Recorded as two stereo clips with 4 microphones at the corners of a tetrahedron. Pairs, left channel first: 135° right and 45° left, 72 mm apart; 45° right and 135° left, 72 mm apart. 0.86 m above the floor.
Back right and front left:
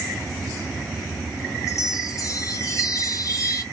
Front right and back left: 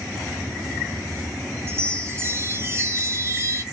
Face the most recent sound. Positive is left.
turn(degrees=-175)